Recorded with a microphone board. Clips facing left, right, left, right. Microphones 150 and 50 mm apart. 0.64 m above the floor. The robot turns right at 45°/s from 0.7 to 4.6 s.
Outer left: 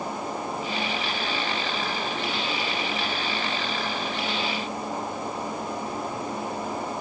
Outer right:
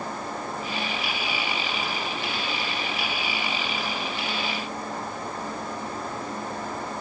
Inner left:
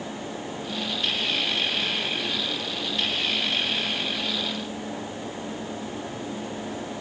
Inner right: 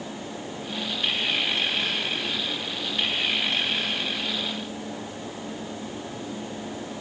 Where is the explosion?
No explosion in this recording.